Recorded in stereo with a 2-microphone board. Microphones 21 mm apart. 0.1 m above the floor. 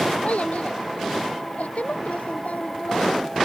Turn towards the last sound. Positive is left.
turn(degrees=85)